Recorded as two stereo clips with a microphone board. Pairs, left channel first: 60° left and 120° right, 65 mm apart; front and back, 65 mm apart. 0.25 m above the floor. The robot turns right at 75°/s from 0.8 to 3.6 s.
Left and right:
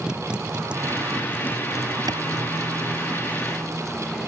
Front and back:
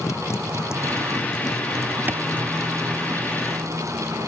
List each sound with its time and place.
0.0 s a motorcycle: 40° right; by 4.3 s 145° left
2.1 s a clap: 120° right; by 2.2 s 110° right